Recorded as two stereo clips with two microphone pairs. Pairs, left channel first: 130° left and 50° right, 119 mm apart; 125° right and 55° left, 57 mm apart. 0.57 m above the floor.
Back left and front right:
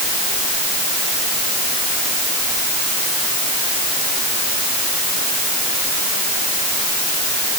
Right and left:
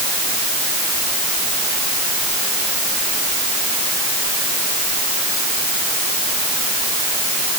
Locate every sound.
Only background noise.